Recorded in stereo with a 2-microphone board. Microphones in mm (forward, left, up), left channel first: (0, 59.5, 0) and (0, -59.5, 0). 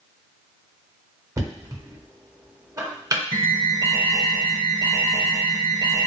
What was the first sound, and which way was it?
Knocking, 25° right (ahead or behind).